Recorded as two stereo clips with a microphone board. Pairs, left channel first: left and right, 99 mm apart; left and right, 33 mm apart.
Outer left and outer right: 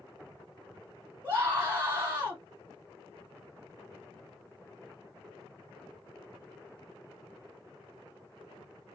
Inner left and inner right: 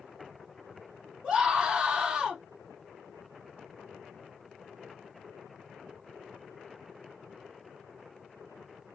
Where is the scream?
20° right (ahead or behind), 1.3 m.